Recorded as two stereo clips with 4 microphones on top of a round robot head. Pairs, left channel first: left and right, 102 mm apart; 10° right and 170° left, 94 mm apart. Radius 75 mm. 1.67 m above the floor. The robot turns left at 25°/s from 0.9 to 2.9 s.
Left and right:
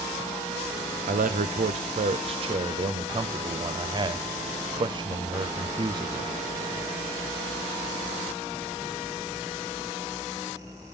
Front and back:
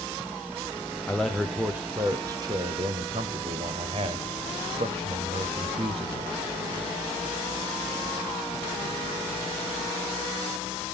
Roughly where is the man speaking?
Right.